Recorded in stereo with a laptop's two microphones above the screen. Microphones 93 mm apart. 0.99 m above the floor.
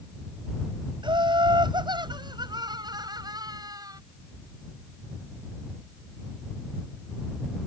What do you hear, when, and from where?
1.0 s laughter: 60° right (ahead or behind); by 4.0 s 45° right (ahead or behind)